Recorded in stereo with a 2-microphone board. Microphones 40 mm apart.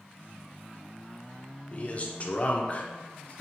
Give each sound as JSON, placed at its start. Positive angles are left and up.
{"t": 1.7, "sound": "a man speaking", "side_deg": 30, "distance_m": 0.5}